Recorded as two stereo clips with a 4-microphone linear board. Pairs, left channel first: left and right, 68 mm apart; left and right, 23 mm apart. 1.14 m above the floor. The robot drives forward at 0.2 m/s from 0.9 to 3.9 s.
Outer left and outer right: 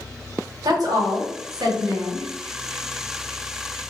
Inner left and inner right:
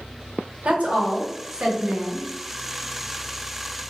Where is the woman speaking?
70° right (ahead or behind), 1.0 m; by 2.3 s 80° right, 0.9 m.